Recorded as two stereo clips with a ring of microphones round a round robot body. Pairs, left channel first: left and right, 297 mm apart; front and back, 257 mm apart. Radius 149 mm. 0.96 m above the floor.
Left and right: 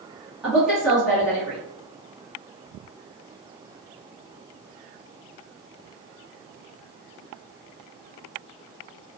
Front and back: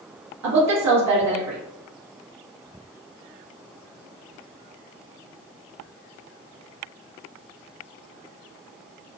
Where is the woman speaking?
Straight behind, 1.0 m.